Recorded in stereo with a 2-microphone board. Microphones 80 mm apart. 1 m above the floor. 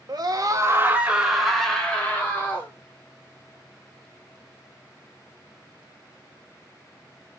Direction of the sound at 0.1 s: 60° right (ahead or behind).